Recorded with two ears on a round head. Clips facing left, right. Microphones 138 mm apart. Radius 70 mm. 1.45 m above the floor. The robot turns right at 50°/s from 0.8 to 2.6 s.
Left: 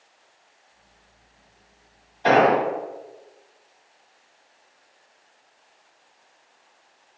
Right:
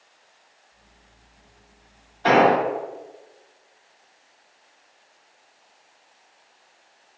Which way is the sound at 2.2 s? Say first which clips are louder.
Even; 20° left (ahead or behind).